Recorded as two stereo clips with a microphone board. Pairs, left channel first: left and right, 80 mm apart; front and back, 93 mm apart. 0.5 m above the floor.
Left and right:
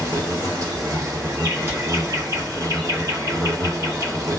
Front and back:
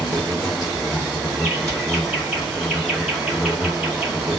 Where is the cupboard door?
140° right, 1.6 m.